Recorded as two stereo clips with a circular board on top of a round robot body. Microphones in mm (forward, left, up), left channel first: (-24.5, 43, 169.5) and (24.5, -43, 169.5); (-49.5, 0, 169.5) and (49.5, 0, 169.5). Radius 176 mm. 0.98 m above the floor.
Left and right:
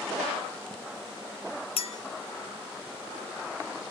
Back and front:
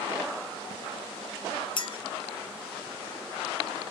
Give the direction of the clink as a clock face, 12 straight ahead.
7 o'clock.